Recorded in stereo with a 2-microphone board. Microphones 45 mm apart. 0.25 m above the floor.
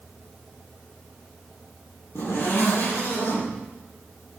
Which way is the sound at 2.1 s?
80° left.